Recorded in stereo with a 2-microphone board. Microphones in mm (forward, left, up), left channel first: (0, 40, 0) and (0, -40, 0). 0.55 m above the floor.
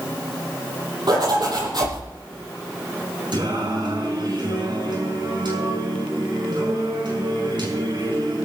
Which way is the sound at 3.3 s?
75° right (ahead or behind).